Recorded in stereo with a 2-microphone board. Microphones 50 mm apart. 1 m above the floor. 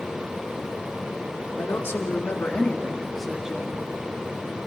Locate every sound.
1.6 s a woman speaking: 65° left (ahead or behind), 3 m; by 3.8 s 25° right (ahead or behind), 2 m